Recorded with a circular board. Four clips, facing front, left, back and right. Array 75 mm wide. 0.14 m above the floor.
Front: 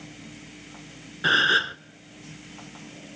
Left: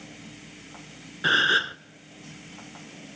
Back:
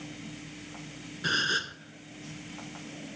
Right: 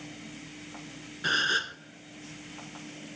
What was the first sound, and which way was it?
A gasp, 35° left.